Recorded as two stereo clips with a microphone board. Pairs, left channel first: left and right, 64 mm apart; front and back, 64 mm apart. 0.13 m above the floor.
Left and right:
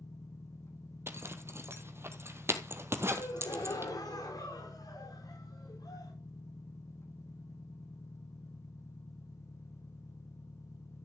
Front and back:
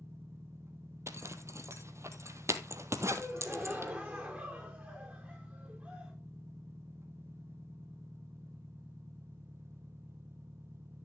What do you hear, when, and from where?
0.0 s an engine running: 130° left, 1.9 m
1.1 s a zipper: 140° right, 1.6 m
3.2 s a gasp: 105° left, 5.5 m